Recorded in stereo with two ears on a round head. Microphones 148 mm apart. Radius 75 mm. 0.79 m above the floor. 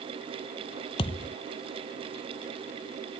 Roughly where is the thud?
Left.